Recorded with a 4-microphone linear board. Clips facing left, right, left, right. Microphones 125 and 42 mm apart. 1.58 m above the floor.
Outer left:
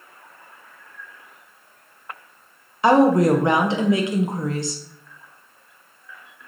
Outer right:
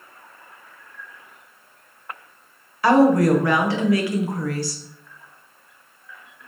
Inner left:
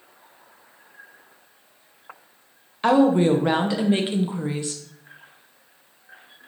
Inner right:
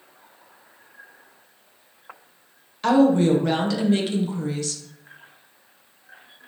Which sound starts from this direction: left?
A woman speaking, at 2.8 s.